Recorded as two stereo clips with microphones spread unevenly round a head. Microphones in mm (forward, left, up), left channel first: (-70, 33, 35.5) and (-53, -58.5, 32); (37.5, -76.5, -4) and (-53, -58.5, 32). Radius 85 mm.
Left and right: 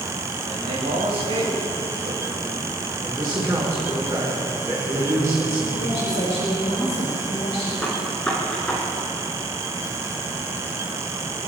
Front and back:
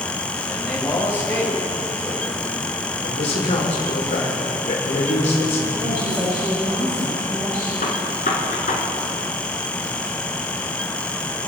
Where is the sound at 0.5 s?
85° right, 6.5 m.